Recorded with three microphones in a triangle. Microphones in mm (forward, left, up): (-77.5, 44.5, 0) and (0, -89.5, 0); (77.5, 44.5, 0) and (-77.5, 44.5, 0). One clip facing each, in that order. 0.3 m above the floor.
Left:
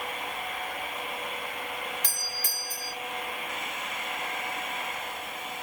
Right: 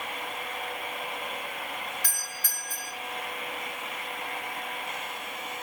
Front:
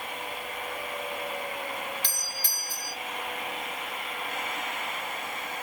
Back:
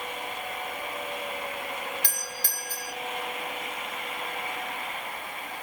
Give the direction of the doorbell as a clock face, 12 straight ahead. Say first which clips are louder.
Left 2 dB, back 2 dB; 6 o'clock.